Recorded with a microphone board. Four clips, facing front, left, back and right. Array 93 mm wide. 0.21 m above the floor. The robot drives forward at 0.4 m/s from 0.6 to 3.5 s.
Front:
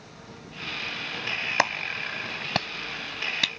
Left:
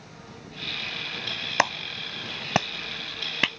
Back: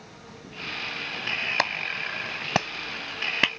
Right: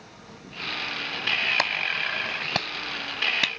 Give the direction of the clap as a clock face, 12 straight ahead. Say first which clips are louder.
Left 2 dB, front 3 dB; 10 o'clock.